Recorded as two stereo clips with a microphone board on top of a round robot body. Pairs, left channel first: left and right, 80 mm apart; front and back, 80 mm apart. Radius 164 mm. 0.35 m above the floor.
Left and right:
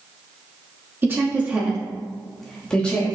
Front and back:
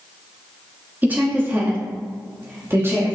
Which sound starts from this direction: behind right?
A woman speaking, at 1.0 s.